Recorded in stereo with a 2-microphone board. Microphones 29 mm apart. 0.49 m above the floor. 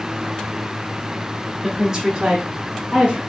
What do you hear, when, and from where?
1.6 s a woman speaking: 10° right (ahead or behind), 0.7 m; by 3.2 s 55° right (ahead or behind), 1.3 m